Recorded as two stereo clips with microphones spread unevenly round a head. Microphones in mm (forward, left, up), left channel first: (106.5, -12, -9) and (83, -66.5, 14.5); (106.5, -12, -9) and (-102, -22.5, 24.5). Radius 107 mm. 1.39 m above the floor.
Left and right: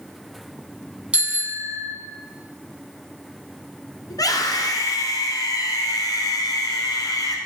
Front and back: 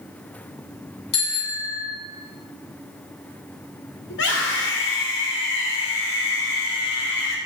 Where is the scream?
40° left, 4.5 m.